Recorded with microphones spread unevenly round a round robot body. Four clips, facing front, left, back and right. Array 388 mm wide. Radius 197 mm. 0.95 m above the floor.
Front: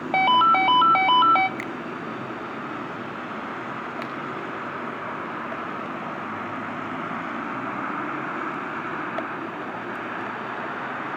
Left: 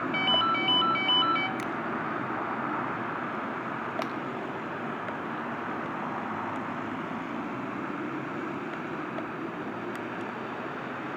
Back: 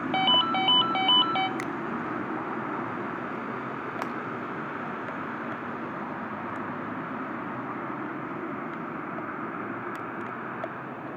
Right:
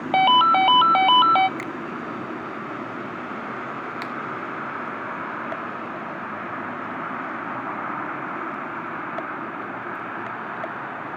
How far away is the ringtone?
About 0.7 m.